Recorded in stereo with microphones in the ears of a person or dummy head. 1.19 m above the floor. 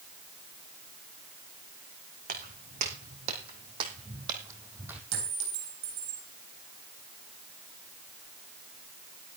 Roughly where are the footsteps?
Right.